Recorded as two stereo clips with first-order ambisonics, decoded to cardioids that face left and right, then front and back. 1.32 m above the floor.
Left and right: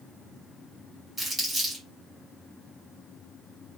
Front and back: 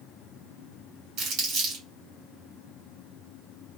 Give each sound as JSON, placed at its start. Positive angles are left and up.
{"t": 1.2, "sound": "crumpling", "azimuth_deg": -175, "distance_m": 1.6}